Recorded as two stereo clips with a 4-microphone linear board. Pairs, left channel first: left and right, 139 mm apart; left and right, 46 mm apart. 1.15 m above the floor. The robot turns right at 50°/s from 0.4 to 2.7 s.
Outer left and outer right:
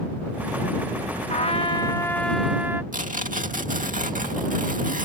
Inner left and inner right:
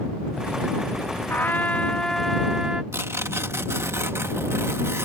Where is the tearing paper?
70° right (ahead or behind).